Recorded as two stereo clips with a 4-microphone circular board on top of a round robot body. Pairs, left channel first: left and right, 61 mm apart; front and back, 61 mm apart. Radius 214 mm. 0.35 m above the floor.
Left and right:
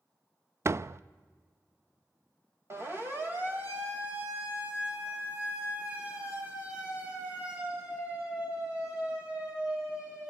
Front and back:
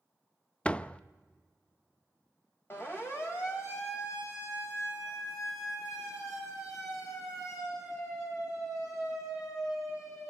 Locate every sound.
0.7 s a door slam: 65° right, 0.6 m
2.7 s a siren: 45° right, 3 m; by 10.3 s 15° right, 10.5 m